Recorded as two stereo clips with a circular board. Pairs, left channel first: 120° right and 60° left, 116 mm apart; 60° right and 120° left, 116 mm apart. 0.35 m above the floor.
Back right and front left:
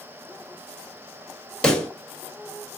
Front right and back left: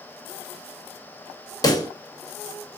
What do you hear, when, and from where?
1.6 s a pop: 45° right, 0.7 m